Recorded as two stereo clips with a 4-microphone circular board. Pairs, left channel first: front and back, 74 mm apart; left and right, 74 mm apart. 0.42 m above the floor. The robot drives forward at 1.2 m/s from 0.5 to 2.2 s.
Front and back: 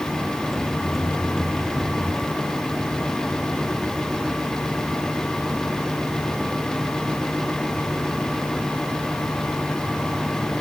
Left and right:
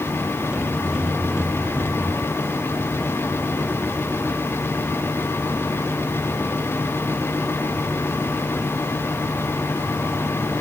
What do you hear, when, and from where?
Only background noise.